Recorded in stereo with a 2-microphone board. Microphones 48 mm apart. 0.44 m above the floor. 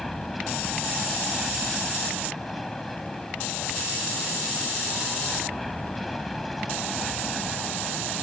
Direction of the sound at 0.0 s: Centre (ahead or behind).